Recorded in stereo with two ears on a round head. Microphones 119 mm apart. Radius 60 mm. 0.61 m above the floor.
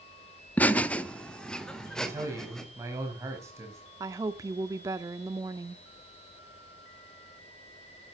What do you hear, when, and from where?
0.6 s laughter: 10° left (ahead or behind), 0.9 m; by 2.6 s 5° left (ahead or behind), 3 m
2.0 s a man speaking: 20° right (ahead or behind), 4.5 m
4.0 s a woman speaking: 25° right (ahead or behind), 0.9 m